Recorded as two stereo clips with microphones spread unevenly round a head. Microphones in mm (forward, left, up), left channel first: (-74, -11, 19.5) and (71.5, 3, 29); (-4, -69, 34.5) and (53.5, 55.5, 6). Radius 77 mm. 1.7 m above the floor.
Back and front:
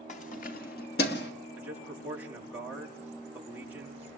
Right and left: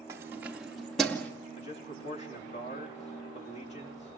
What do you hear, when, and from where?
0.1 s keys jangling: 140° left, 2.5 m; by 1.3 s 170° left, 2.5 m
1.6 s a man speaking: 75° right, 5 m